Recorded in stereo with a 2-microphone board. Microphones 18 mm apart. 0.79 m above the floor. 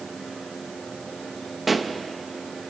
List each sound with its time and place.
1.7 s a pop: 5° right (ahead or behind), 0.7 m